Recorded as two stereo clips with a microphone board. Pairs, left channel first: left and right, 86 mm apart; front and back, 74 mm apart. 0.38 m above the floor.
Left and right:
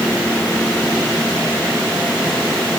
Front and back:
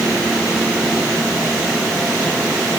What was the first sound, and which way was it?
Only background noise.